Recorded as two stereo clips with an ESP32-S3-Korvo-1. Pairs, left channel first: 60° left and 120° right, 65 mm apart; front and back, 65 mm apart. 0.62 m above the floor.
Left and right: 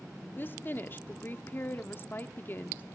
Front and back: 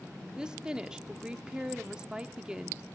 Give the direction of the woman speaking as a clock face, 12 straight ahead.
8 o'clock.